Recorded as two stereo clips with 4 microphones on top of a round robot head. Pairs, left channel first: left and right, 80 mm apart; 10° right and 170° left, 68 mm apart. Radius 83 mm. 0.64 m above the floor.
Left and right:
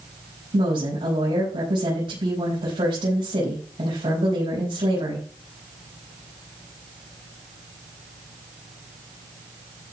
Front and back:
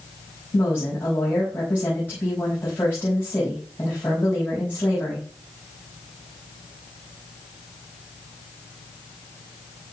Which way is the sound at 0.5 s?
75° right.